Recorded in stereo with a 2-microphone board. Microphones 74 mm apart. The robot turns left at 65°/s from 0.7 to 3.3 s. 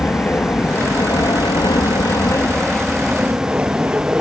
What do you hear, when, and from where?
0.0 s an aircraft: 30° left (ahead or behind); by 4.2 s 20° right (ahead or behind)